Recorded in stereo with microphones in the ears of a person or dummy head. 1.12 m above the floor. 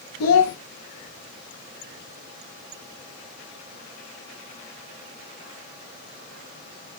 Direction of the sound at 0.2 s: 70° left (ahead or behind).